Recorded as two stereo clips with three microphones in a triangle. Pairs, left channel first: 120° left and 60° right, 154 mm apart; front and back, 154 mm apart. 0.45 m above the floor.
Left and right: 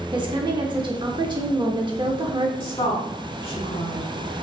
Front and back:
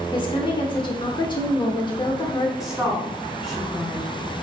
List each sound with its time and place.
0.1 s a woman speaking: 30° right, 0.8 m
2.6 s a woman speaking: 95° left, 1.6 m